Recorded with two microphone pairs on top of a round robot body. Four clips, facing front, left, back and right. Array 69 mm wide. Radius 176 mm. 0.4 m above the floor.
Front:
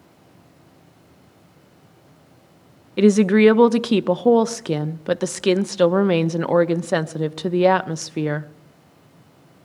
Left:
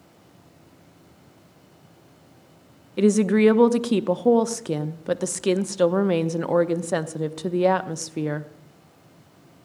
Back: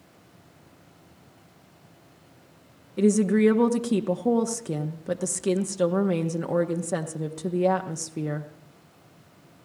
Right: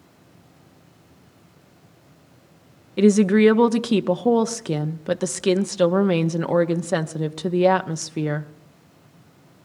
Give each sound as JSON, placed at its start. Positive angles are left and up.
{"t": 3.0, "sound": "a woman speaking", "azimuth_deg": -5, "distance_m": 1.0}